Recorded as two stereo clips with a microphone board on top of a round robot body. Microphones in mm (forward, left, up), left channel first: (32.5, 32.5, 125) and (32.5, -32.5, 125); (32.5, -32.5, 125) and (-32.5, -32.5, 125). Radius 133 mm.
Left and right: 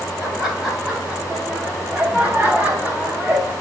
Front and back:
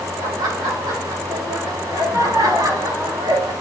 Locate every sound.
0.2 s laughter: straight behind, 6 m; by 3.5 s 155° right, 7.5 m